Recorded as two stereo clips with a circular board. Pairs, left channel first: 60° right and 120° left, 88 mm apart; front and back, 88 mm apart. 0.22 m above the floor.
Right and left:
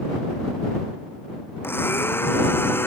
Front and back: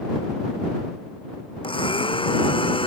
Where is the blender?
5° left.